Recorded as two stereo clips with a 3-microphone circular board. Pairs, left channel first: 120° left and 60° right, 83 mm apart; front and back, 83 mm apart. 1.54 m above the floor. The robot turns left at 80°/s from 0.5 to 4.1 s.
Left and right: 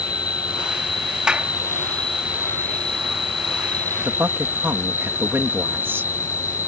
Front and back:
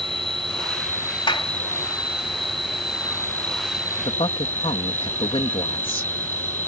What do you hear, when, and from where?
0.0 s an insect: 160° left; by 6.7 s 125° right
1.3 s a clap: 20° left; by 1.5 s 5° left
4.0 s a man speaking: 15° left; by 6.1 s 5° left